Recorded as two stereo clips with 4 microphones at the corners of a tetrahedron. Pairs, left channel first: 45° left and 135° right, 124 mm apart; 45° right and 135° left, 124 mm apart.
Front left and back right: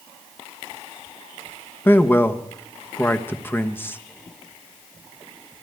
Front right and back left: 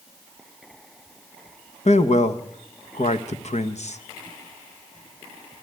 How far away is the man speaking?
About 1.1 m.